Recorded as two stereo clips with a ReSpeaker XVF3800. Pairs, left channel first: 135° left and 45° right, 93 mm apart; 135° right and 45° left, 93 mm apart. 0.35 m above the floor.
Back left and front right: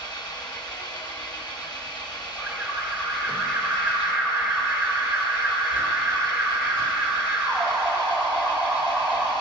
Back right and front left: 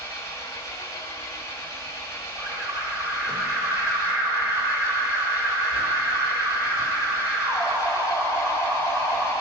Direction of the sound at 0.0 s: 170° left.